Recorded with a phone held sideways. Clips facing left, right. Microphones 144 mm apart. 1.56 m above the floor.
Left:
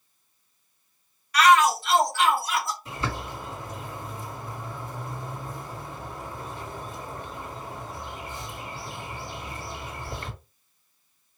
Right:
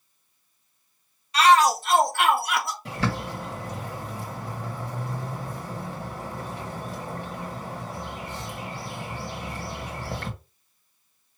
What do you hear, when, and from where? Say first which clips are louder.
1.3 s a shout: right 1 dB; 25° right (ahead or behind), 1.0 m; by 2.8 s 75° right (ahead or behind), 1.4 m
2.9 s a bird: right 4 dB; 85° right, 1.8 m